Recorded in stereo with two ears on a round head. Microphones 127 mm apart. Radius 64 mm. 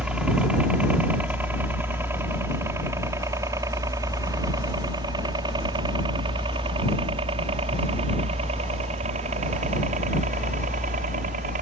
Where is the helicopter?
5° right (ahead or behind); by 11.6 s 55° right (ahead or behind).